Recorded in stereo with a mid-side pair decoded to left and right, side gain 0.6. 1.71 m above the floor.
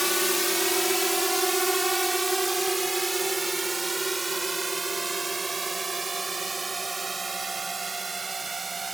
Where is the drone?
5° left; by 9.0 s 20° right.